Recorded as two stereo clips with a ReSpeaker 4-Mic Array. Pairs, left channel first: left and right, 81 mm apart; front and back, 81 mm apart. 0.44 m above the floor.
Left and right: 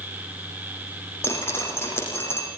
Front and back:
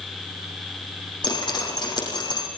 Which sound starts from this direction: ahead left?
Dripping, at 1.2 s.